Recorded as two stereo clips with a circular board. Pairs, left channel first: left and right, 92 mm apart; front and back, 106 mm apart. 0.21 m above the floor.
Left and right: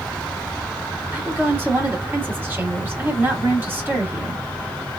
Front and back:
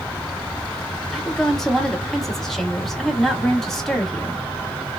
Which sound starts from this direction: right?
A woman speaking, at 1.1 s.